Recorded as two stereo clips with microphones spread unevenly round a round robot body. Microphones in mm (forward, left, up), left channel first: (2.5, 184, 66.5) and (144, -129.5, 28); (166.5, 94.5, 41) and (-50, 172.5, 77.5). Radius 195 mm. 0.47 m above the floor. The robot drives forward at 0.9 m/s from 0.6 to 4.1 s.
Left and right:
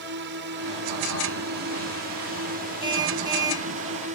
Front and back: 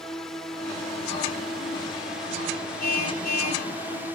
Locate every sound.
0.0 s a drone: 95° right; by 4.2 s 110° right
2.8 s a car horn: 145° right; by 3.7 s 150° right